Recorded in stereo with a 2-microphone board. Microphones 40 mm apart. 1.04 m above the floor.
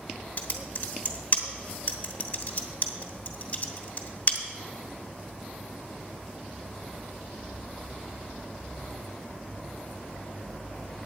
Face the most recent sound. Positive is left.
turn(degrees=40)  # may be behind; listen again after turning